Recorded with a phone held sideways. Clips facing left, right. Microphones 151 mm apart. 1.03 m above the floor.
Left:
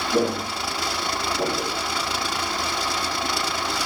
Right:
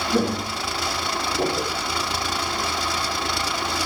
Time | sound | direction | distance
0.1 | footsteps | 10° left (ahead or behind) | 1.3 m